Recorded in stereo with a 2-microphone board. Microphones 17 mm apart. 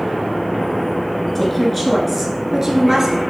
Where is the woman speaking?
10° left (ahead or behind), 1.1 m; by 3.2 s 35° right (ahead or behind), 1.4 m.